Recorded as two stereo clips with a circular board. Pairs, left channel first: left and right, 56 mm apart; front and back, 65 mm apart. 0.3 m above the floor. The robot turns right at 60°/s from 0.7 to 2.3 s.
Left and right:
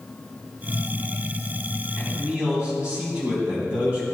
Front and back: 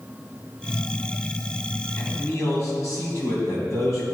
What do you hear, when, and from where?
2.0 s a man speaking: 50° right, 3 m; by 4.0 s 30° right, 3 m